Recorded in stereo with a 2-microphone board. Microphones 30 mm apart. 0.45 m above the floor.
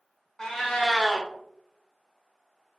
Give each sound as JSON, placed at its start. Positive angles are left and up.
{"t": 0.4, "sound": "a cat meowing", "side_deg": 20, "distance_m": 0.6}